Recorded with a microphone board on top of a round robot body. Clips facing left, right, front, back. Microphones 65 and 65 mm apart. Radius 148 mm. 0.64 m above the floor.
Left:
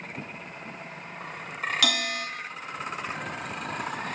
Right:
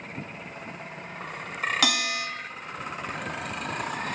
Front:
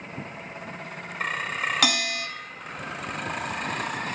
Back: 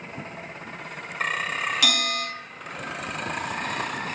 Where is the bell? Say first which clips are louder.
Right 1 dB, even; 40° right, 0.7 m.